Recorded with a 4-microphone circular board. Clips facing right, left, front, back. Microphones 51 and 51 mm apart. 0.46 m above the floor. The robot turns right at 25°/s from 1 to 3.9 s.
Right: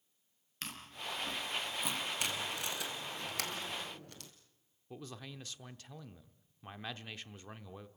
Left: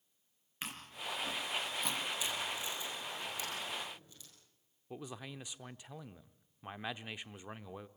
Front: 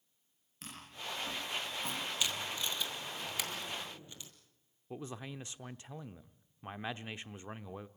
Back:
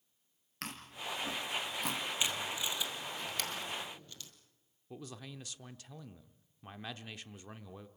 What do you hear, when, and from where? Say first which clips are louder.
0.6 s chewing: left 1 dB, back 3 dB; 165° left, 4 m; by 2.0 s 170° right, 4 m
2.2 s tape being pulled: right 1 dB, back 1 dB; 110° right, 2.5 m; by 4.3 s 70° right, 2.5 m
4.9 s a man speaking: left 2 dB, front 4 dB; 30° left, 0.8 m